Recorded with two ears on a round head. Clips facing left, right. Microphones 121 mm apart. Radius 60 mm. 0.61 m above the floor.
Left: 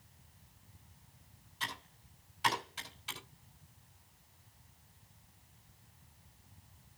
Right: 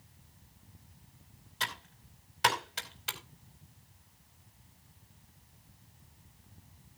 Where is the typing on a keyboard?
75° right (ahead or behind), 4.5 m.